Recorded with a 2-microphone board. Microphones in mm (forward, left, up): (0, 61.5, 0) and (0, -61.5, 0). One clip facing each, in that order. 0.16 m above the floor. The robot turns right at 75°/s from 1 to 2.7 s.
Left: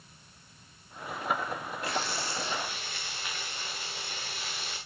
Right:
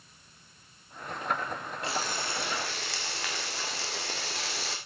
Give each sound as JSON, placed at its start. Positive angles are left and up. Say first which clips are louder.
{"t": 1.8, "sound": "frying", "louder": "even", "azimuth_deg": -155, "distance_m": 3.0}